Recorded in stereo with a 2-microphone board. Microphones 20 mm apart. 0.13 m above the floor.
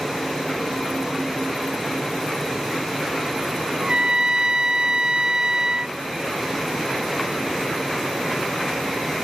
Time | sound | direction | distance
3.8 | a trumpet | 45° right (ahead or behind) | ?